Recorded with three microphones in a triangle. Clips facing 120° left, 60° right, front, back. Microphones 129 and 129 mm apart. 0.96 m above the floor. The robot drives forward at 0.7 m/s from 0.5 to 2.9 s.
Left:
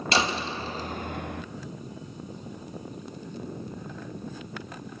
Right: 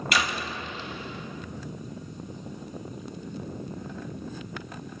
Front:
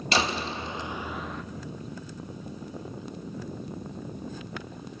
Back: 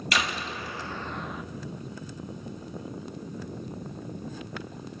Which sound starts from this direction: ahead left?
A door slam, at 0.1 s.